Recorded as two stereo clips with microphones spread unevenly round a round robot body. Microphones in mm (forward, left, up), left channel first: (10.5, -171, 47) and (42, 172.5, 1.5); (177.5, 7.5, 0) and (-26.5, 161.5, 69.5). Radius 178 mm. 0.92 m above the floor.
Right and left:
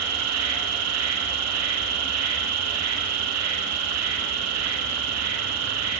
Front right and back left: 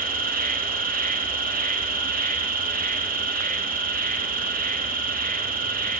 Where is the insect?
80° left, 1.3 m.